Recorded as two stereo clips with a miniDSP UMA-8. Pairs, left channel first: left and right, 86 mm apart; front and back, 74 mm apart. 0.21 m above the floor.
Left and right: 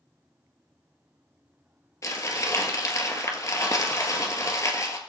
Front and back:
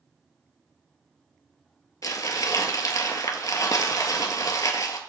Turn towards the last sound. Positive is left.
turn(degrees=35)